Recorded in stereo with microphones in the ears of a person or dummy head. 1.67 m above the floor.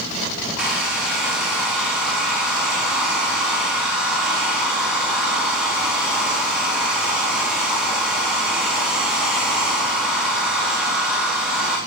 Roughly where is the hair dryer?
Centre.